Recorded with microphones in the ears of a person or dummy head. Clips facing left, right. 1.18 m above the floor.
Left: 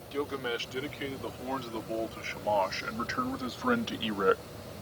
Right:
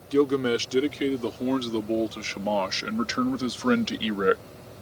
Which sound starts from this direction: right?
A man speaking, at 0.1 s.